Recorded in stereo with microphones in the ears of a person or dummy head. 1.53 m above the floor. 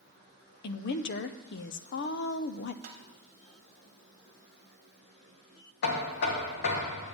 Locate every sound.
0.6 s a woman speaking: 60° left (ahead or behind), 0.5 m
2.8 s tapping: 50° right (ahead or behind), 1.1 m
5.8 s knocking: 55° left (ahead or behind), 1.3 m